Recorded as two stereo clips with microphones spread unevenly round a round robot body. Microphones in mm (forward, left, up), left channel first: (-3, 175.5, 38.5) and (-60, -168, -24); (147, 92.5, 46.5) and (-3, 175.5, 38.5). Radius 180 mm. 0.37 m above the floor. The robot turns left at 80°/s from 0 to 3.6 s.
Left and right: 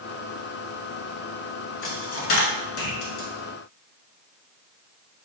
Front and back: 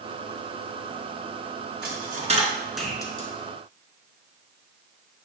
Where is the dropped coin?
140° left, 1.3 m; by 3.3 s 20° left, 1.3 m.